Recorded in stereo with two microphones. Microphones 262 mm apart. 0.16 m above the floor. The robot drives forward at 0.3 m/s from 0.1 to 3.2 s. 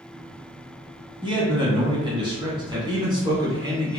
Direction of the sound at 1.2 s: 20° right (ahead or behind).